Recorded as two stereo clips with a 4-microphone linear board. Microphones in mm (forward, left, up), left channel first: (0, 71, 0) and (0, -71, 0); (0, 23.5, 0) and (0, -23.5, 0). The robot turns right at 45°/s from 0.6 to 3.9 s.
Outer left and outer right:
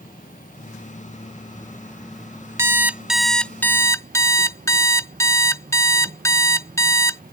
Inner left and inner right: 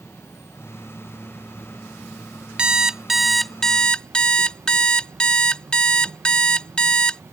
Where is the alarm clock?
30° right; by 7.2 s 30° left.